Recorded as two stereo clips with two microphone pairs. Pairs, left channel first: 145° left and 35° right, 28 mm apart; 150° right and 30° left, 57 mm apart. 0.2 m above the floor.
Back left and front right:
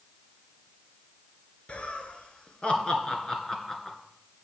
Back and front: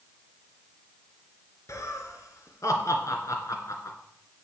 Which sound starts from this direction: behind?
Laughter, at 1.7 s.